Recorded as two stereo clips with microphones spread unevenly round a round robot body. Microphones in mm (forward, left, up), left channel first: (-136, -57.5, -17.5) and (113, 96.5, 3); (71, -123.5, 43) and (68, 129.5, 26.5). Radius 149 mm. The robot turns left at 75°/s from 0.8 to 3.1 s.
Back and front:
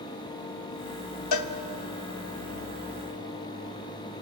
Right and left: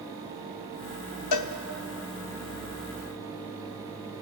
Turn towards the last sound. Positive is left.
turn(degrees=115)